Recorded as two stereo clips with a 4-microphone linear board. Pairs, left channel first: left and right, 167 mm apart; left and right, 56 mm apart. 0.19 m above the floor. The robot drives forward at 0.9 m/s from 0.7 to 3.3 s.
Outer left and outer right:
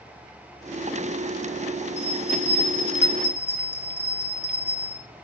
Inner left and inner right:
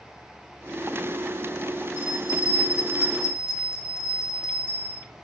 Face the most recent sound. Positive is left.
turn(degrees=-10)  # may be behind; listen again after turning